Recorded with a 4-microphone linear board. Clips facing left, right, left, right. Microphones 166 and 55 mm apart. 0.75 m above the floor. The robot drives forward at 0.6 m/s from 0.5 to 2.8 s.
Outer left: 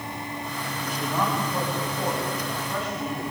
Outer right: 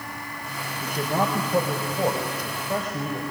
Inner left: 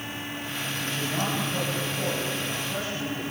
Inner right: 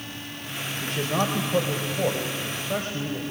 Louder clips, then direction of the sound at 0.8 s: Outer right 3 dB, inner right 5 dB; 60° right (ahead or behind).